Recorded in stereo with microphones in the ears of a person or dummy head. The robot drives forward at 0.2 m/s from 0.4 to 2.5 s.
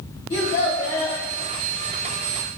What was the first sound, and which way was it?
A child speaking, 35° left (ahead or behind).